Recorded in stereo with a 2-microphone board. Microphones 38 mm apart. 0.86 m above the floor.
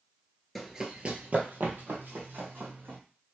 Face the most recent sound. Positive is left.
turn(degrees=-75)  # may be behind; listen again after turning